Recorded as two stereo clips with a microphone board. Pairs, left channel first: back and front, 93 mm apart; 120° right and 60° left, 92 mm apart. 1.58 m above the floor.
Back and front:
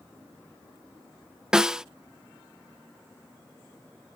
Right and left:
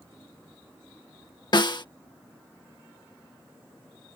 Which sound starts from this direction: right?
A snare drum, at 1.5 s.